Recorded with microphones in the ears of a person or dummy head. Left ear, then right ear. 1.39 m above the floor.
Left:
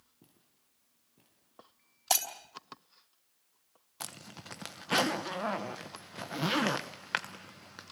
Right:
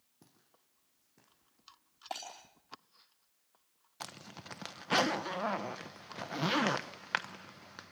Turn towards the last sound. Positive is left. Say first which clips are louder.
# left 1 dB
turn(degrees=-5)  # may be behind; listen again after turning